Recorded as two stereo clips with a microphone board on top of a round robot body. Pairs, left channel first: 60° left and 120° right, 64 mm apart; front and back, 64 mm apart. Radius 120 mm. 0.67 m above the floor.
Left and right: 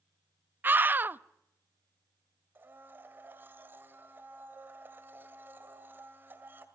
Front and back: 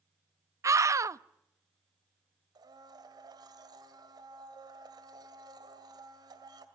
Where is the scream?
170° right, 0.7 m.